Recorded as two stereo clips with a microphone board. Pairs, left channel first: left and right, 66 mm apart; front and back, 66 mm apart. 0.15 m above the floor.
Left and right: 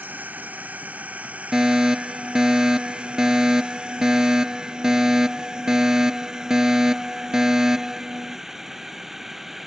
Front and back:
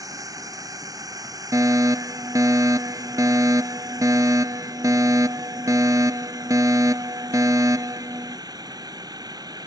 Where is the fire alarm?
170° right.